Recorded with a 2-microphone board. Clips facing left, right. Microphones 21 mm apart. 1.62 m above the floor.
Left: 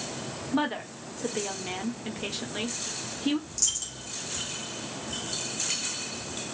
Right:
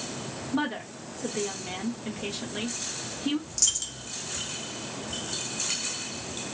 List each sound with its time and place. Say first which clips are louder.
0.5 s a woman speaking: left 1 dB; 15° left (ahead or behind), 1.1 m
3.5 s a dropped coin: right 2 dB; 20° right (ahead or behind), 1.6 m